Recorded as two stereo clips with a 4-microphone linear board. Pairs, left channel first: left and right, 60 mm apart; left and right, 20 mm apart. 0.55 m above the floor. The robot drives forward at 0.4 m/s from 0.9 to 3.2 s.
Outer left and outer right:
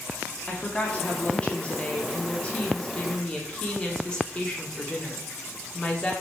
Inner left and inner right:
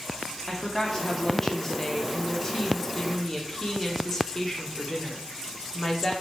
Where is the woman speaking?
20° left (ahead or behind), 0.8 m; by 6.1 s 15° left (ahead or behind), 1.0 m.